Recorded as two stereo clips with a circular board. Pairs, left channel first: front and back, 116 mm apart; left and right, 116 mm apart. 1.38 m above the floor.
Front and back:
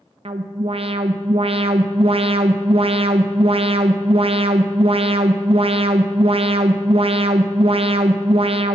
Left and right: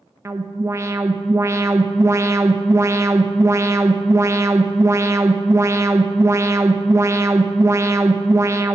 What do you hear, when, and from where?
0.2 s an alarm: 155° right, 0.6 m